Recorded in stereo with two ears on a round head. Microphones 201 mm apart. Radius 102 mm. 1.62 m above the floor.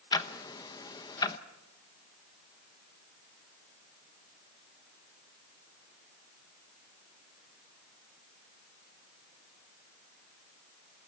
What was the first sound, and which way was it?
Ticking, 20° left (ahead or behind).